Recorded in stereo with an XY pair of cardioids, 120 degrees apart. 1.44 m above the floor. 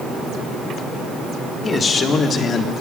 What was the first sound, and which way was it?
A man speaking, 30° left.